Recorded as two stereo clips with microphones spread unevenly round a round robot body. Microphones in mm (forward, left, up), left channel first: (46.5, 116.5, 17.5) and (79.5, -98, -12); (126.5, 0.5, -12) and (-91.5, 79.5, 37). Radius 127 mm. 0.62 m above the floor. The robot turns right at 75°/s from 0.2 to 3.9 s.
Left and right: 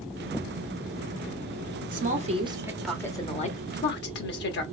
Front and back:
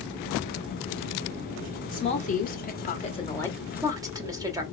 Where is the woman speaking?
70° right, 1.1 m; by 4.6 s 80° left, 1.1 m.